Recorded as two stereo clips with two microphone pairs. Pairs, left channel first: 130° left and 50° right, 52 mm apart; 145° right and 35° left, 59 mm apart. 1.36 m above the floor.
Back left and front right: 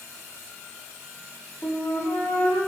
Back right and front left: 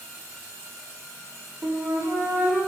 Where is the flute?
75° left, 2.0 m.